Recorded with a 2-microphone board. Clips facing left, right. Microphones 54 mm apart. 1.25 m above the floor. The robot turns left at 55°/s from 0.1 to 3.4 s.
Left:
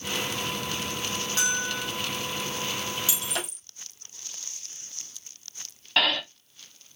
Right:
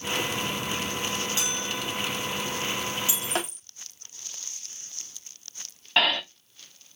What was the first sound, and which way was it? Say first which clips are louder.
A bell: left 2 dB; 55° left (ahead or behind).